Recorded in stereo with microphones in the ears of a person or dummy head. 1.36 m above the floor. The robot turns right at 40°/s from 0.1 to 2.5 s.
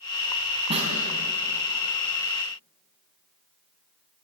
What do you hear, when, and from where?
0.7 s a snare drum: 30° right (ahead or behind), 3.5 m; by 0.9 s 40° right (ahead or behind), 3.5 m